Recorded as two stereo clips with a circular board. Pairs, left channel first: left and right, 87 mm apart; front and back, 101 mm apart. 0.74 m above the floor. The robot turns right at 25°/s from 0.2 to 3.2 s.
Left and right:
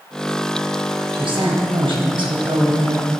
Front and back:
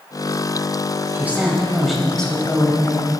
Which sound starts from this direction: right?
A woman speaking, at 1.1 s.